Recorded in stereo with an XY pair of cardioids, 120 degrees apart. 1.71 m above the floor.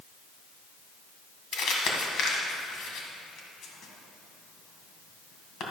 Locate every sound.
1.5 s crumpling: 70° left, 2.0 m